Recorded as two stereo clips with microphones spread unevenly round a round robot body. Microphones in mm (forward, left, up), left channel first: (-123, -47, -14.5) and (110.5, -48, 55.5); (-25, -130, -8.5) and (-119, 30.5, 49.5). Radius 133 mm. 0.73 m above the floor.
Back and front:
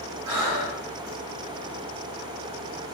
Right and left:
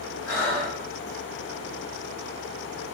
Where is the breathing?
15° left, 1.6 m.